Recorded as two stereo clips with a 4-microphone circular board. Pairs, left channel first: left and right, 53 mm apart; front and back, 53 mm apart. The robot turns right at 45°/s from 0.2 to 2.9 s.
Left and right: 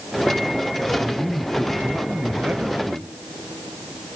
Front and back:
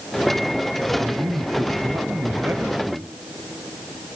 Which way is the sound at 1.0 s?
150° left.